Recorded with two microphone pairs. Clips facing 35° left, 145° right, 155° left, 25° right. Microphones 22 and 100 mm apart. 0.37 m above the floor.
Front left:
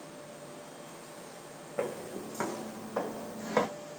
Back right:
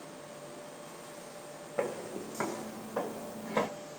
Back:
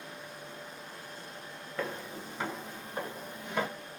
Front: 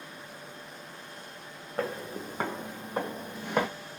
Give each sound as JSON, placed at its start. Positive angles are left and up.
{"t": 1.8, "sound": "footsteps", "azimuth_deg": -75, "distance_m": 1.1}